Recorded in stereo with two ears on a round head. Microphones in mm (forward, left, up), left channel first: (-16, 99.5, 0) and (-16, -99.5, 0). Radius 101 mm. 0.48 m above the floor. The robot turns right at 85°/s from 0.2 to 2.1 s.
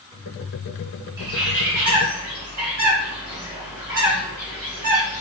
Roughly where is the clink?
I don't hear a clink.